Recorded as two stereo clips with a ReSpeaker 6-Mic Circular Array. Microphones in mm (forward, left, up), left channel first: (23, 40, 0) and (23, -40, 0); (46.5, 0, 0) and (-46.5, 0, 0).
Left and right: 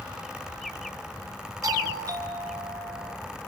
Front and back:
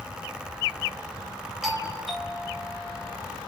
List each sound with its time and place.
1.6 s a doorbell: 90° right, 3 m